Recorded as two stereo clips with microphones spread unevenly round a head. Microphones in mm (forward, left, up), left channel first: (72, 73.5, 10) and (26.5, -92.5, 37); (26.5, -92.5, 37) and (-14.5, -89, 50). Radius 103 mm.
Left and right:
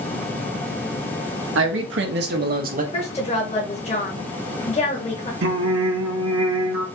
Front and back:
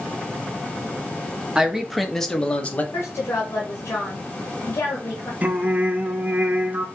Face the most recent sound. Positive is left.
turn(degrees=-125)